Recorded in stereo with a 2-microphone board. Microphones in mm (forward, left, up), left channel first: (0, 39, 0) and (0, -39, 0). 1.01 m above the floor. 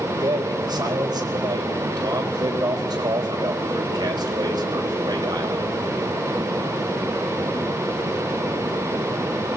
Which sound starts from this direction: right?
A man speaking, at 0.2 s.